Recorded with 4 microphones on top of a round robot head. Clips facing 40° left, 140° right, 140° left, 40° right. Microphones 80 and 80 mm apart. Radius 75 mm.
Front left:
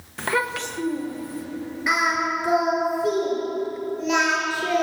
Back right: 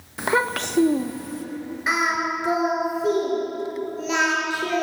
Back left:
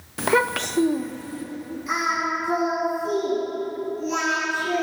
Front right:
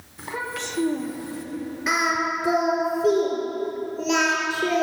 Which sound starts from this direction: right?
Singing, at 1.9 s.